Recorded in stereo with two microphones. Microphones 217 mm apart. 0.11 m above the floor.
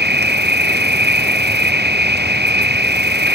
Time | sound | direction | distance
0.0 | an insect | 50° right (ahead or behind) | ?